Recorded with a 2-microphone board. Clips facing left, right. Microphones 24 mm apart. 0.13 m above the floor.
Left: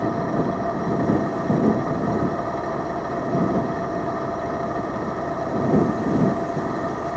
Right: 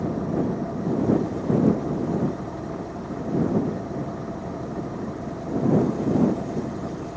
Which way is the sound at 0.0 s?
75° left (ahead or behind).